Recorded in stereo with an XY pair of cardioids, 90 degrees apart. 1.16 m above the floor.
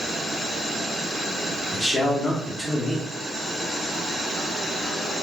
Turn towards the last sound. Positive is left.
turn(degrees=10)